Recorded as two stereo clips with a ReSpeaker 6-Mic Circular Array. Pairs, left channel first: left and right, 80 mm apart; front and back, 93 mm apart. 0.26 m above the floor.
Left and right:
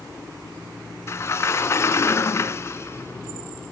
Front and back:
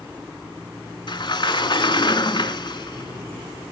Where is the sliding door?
35° left, 0.6 m.